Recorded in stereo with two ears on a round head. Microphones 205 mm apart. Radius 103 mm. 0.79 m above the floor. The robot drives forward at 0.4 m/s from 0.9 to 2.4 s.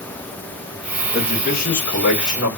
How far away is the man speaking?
About 1.7 m.